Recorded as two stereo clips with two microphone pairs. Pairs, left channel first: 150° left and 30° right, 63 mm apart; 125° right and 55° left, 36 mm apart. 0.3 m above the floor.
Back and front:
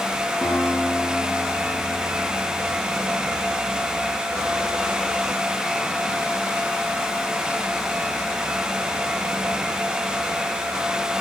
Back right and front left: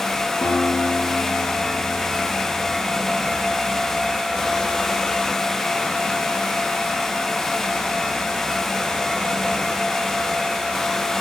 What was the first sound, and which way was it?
A guitar, 130° right.